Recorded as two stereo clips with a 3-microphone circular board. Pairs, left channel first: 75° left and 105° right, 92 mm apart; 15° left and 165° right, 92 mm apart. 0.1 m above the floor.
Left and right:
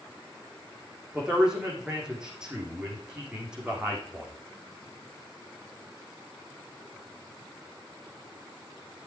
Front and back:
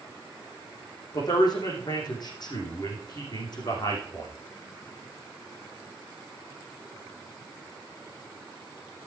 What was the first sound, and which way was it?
A man speaking, 25° right.